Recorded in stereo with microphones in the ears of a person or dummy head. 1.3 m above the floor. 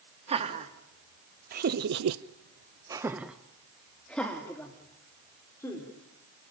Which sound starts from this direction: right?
Laughter, at 0.3 s.